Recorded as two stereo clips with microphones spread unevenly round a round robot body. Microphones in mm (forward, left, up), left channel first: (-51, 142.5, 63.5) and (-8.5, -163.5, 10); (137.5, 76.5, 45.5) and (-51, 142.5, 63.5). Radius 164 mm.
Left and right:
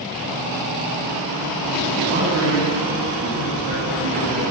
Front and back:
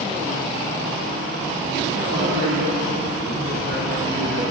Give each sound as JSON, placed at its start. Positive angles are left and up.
{"t": 2.1, "sound": "a man speaking", "azimuth_deg": -140, "distance_m": 7.5}